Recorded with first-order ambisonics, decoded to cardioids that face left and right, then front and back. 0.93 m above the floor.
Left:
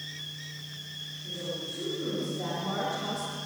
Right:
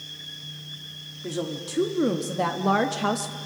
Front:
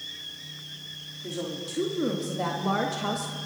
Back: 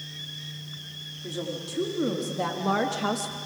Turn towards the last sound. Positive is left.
turn(degrees=-115)